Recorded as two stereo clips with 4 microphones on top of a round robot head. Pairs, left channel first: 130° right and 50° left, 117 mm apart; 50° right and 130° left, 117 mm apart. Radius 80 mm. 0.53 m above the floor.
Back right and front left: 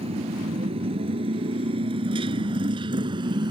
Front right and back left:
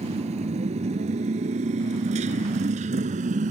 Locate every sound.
0.0 s a motorcycle: 90° left; by 3.5 s 105° left